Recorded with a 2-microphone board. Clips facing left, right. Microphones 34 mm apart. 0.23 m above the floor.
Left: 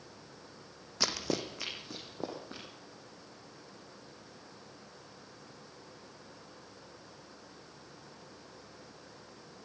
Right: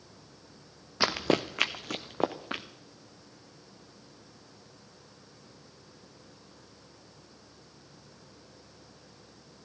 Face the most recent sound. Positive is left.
turn(degrees=-80)